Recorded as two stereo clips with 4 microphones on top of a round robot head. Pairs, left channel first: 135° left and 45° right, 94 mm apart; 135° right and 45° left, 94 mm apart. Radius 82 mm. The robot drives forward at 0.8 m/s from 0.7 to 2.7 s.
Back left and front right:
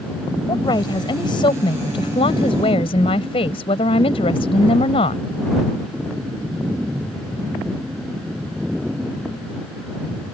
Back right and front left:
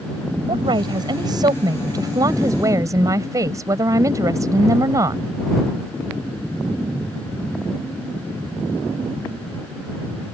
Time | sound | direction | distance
0.5 | a woman speaking | 85° left | ?